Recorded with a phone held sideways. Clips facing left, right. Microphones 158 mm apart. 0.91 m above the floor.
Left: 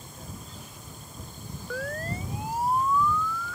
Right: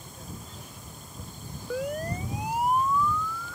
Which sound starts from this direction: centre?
A siren, at 1.7 s.